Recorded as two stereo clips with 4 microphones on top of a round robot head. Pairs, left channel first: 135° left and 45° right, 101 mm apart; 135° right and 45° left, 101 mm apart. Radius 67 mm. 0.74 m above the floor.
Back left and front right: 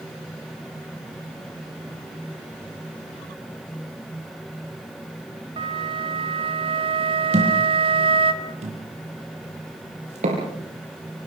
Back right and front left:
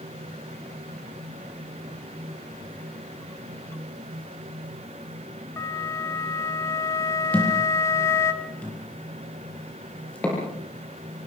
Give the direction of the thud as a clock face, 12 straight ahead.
2 o'clock.